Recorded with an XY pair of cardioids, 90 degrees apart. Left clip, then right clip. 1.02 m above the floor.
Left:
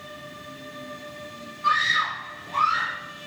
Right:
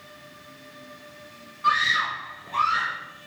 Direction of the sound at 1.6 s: 10° right.